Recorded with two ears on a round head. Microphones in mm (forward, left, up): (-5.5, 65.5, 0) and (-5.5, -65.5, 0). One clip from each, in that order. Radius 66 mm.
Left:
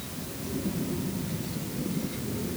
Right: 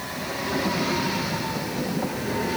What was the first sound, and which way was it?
Only background noise.